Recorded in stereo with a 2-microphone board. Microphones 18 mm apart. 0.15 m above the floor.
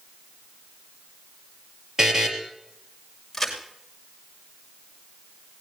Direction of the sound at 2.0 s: 25° right (ahead or behind).